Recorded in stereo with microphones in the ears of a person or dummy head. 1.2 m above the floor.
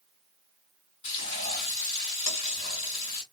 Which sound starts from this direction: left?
Frying, at 1.0 s.